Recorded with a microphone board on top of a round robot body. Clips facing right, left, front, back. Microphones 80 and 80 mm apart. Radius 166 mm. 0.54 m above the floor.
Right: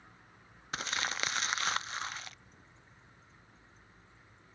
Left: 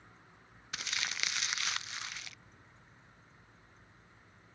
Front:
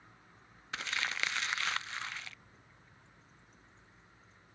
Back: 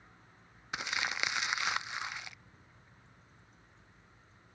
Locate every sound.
0.7 s crumpling: 115° right